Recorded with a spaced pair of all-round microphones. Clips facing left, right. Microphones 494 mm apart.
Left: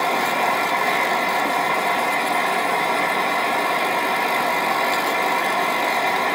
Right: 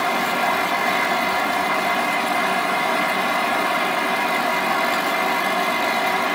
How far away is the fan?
About 1.2 m.